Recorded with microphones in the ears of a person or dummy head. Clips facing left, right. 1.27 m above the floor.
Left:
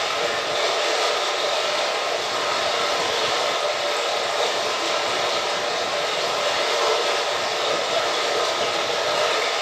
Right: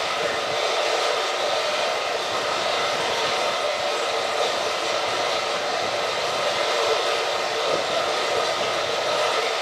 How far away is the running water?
About 1.3 m.